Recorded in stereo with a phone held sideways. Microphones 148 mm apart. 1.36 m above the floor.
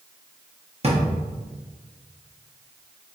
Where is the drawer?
45° right (ahead or behind), 1.0 m.